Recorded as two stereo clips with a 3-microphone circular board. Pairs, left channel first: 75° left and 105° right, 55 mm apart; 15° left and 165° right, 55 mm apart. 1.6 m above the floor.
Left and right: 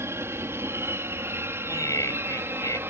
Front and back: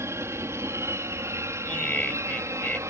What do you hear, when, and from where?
0.0 s an aircraft: 135° right; by 2.9 s 145° right
1.6 s laughter: 85° left